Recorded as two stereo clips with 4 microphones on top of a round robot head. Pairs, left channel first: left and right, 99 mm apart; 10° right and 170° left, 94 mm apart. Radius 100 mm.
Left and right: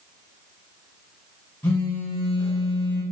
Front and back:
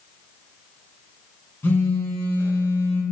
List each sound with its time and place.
1.6 s a phone buzzing: 30° left, 1.4 m